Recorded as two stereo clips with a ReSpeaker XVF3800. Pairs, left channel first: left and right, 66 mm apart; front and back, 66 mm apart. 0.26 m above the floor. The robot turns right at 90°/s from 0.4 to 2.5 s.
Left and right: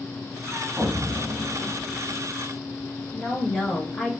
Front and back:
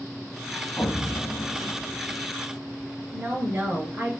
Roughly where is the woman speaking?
Behind.